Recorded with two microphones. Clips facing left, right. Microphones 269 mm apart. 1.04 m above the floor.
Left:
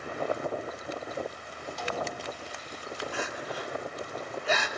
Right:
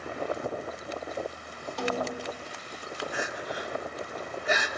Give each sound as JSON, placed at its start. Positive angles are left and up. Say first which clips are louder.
{"t": 1.8, "sound": "a snare drum", "louder": "right 5 dB", "side_deg": -65, "distance_m": 2.5}
{"t": 3.1, "sound": "crying", "louder": "right 1 dB", "side_deg": -15, "distance_m": 3.0}